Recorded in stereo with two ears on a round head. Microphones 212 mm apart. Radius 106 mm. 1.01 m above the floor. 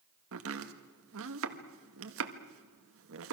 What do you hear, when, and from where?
0.3 s chopping: 65° right (ahead or behind), 1.7 m